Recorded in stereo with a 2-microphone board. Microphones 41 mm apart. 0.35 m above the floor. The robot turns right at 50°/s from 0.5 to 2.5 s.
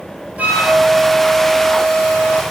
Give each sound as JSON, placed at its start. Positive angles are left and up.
{"t": 0.4, "sound": "a flute", "azimuth_deg": -35, "distance_m": 1.3}